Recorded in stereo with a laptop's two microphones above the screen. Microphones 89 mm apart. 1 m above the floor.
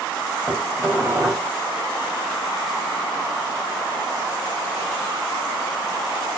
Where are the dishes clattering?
20° right (ahead or behind), 3.5 m.